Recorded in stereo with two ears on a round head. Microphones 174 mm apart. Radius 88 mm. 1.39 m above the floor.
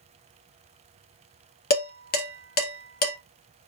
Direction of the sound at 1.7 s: 50° left (ahead or behind).